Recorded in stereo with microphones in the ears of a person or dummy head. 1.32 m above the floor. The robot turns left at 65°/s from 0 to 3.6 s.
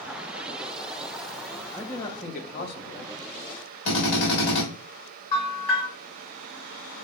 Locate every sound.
1.7 s a man speaking: 175° right, 0.5 m; by 3.1 s 95° left, 0.5 m
3.9 s a drill: 70° left (ahead or behind), 2 m
5.3 s a bell: 45° left (ahead or behind), 2 m